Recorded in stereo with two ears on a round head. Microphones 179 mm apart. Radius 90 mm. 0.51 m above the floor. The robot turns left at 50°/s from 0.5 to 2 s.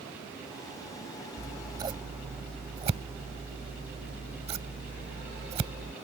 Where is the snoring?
No snoring in this recording.